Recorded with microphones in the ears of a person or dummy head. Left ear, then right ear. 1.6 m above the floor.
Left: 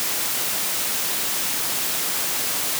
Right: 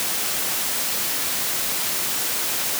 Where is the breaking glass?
No breaking glass in this recording.